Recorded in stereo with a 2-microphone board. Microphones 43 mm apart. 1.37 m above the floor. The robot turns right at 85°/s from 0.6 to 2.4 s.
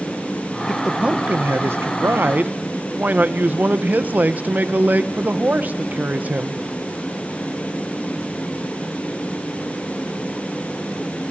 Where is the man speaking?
170° left, 1.2 m; by 6.6 s 45° right, 1.2 m.